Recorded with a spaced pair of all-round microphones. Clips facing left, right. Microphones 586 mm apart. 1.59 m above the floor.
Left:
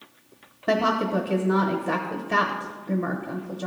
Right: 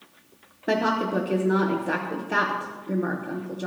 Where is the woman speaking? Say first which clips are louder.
Even; 25° left (ahead or behind), 0.9 m.